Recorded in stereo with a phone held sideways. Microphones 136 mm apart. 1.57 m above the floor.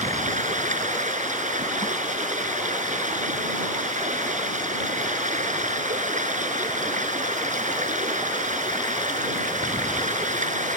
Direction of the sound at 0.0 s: 65° right (ahead or behind).